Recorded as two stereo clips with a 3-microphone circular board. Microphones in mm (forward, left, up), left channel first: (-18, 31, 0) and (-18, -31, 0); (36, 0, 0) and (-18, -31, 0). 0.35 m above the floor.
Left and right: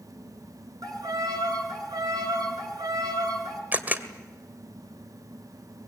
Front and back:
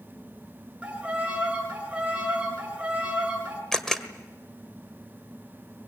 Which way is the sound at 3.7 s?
50° right.